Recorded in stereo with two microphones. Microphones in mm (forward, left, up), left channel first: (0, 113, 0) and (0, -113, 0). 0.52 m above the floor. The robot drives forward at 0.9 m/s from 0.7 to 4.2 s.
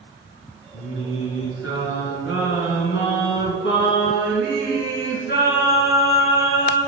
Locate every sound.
0.7 s singing: 55° left (ahead or behind), 2.5 m; by 6.8 s 50° left (ahead or behind), 2.5 m